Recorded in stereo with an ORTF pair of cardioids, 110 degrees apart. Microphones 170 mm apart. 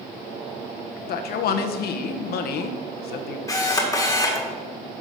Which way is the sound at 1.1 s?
65° left.